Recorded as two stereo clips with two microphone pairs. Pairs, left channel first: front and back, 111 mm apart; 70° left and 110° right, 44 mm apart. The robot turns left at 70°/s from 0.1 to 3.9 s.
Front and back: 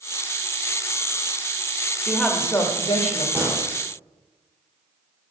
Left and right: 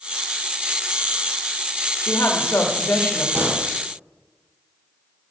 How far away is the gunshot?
About 3 m.